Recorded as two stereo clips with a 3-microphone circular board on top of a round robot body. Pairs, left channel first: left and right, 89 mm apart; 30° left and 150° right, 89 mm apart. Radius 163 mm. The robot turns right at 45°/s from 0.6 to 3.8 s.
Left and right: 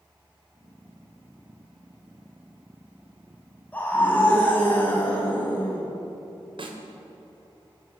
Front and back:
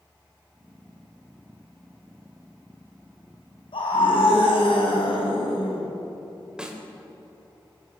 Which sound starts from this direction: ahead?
A scream, at 3.7 s.